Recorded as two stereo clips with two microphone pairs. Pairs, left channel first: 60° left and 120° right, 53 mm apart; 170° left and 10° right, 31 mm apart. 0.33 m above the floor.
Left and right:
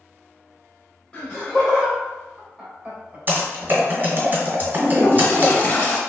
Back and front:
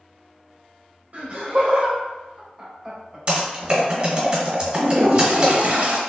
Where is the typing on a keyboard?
70° right, 1.3 m.